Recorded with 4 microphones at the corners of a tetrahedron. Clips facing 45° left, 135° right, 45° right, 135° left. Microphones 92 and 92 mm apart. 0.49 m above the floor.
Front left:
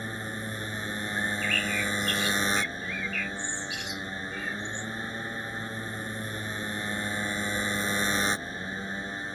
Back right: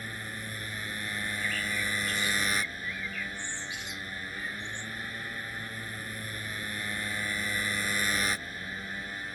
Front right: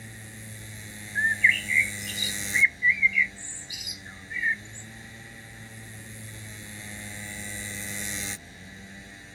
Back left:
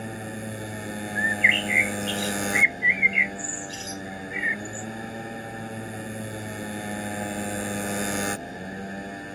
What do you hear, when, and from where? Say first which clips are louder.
0.0 s a motorcycle: front left 5 dB, back left 12 dB; 105° left
1.1 s a bird: front left 4 dB, back left 1 dB; 40° left